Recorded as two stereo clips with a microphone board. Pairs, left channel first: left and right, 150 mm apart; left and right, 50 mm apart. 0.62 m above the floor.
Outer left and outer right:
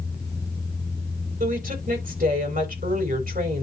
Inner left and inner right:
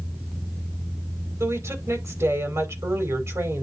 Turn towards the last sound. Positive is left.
turn(degrees=-75)  # may be behind; listen again after turning